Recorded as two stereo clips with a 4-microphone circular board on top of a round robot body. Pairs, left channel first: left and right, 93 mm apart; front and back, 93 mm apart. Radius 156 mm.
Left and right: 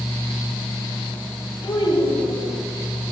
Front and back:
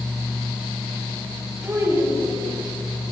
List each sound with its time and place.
1.6 s a child speaking: 115° left, 8 m